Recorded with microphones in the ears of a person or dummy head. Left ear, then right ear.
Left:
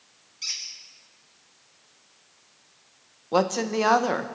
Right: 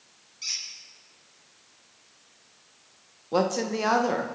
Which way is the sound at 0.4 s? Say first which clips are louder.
Even; 15° left (ahead or behind).